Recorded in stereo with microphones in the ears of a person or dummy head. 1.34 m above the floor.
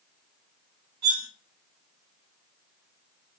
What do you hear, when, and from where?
1.0 s cutlery clinking: 55° right (ahead or behind), 1.1 m